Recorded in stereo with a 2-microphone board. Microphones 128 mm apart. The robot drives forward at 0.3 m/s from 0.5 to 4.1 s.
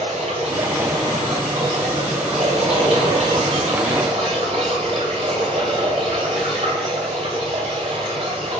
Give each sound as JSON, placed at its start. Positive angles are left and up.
{"t": 0.0, "sound": "running water", "side_deg": -65, "distance_m": 2.0}